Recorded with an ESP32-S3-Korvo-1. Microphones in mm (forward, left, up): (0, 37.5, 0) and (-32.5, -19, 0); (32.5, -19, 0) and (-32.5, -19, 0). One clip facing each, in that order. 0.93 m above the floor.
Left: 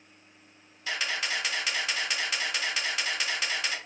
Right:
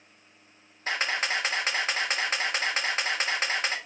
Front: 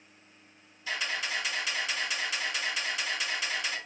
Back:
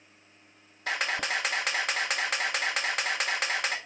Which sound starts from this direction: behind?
A camera shutter, at 0.9 s.